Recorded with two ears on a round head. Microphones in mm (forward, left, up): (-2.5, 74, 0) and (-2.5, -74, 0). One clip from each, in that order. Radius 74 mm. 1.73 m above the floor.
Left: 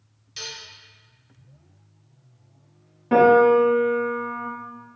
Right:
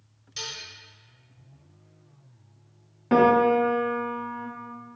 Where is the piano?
25° right (ahead or behind), 0.9 m.